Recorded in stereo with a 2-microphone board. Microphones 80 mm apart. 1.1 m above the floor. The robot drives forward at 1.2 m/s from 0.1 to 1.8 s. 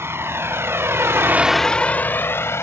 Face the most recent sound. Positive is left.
turn(degrees=30)  # may be behind; listen again after turning